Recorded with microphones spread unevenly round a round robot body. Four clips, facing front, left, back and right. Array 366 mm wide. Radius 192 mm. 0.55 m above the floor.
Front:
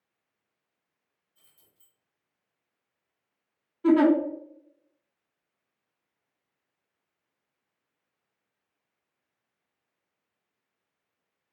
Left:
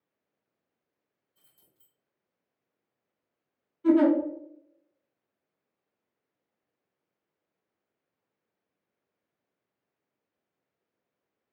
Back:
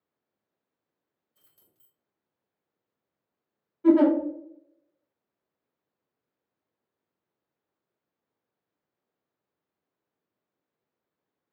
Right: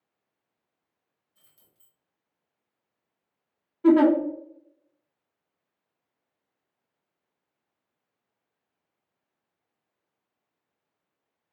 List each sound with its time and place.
1.4 s keys jangling: 140° right, 2.0 m
3.8 s a giggle: 65° right, 2 m